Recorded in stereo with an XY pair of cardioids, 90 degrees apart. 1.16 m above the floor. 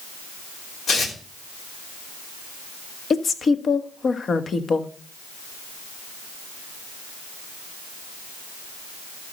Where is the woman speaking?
50° left, 1.4 m.